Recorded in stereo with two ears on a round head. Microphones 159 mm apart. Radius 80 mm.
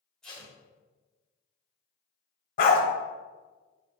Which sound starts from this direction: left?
A dog barking, at 2.6 s.